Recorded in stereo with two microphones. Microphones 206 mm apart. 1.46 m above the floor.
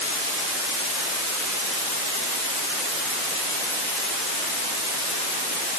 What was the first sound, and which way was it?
Only background noise.